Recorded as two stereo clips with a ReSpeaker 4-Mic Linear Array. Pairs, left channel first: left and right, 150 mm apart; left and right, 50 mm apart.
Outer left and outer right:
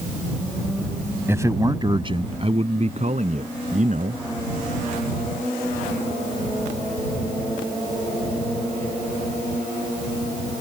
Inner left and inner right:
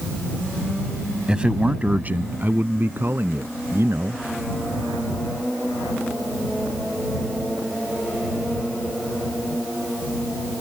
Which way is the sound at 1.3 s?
15° right (ahead or behind).